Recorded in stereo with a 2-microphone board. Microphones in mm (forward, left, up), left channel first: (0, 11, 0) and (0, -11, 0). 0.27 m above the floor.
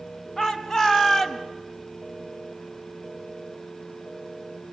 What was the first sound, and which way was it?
A shout, 30° left (ahead or behind).